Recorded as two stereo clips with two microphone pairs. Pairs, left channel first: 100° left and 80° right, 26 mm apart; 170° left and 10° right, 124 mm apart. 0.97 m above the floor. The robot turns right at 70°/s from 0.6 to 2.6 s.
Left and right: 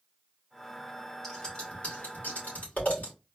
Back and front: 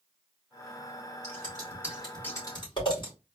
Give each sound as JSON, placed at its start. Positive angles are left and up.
{"t": 1.2, "sound": "scissors", "azimuth_deg": 20, "distance_m": 2.0}